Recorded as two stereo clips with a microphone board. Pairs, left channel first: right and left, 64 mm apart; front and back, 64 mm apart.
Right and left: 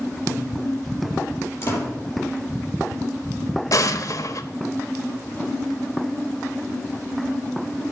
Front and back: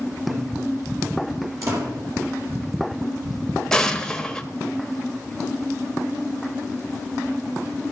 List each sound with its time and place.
0.3 s laughter: 150° right, 8 m
1.6 s a door slam: 140° right, 7 m
3.7 s an explosion: 80° right, 0.9 m